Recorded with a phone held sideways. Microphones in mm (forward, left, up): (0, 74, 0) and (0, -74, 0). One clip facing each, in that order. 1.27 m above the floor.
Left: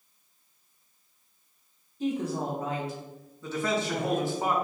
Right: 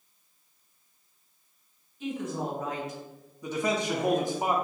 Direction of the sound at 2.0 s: 40° left (ahead or behind).